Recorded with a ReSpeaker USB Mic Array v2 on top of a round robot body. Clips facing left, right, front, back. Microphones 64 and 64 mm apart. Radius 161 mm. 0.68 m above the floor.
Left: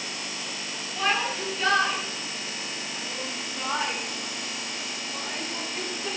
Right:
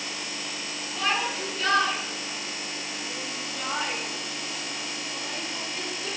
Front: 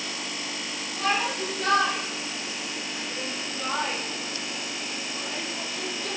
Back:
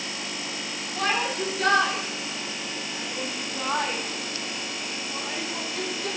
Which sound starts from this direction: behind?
A shout, at 1.0 s.